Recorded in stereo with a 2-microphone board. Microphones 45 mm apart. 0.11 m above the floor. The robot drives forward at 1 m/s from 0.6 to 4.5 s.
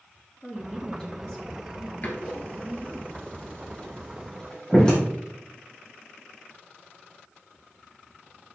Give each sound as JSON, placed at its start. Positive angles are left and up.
{"t": 0.4, "sound": "a woman speaking", "side_deg": 15, "distance_m": 1.6}
{"t": 2.0, "sound": "a door slam", "side_deg": 40, "distance_m": 1.6}